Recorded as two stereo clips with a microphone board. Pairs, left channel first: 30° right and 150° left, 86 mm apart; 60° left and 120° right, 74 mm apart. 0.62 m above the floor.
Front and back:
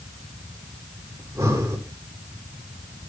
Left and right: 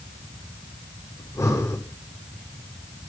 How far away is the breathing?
About 2.5 m.